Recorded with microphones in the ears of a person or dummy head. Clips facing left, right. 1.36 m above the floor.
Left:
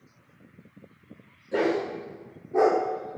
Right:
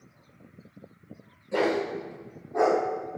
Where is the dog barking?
15° left (ahead or behind), 2 m; by 2.8 s 55° left (ahead or behind), 1.6 m.